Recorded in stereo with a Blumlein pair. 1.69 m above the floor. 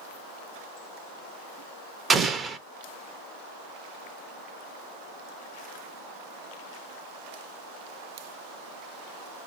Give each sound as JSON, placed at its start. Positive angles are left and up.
{"t": 2.1, "sound": "an explosion", "azimuth_deg": -20, "distance_m": 0.6}